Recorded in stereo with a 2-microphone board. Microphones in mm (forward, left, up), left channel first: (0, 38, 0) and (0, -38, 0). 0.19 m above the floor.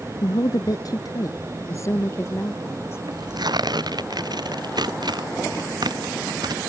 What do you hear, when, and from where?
0.2 s a woman speaking: 60° left (ahead or behind); by 3.0 s 30° left (ahead or behind)
3.1 s tearing paper: 65° right (ahead or behind)